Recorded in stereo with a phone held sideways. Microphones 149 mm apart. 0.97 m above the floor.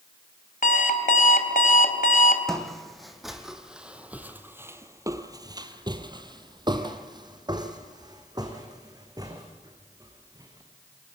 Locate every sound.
0.6 s an alarm clock: 60° left (ahead or behind), 2 m
2.5 s footsteps: 5° left (ahead or behind), 2 m; by 10.6 s 25° right (ahead or behind), 3.5 m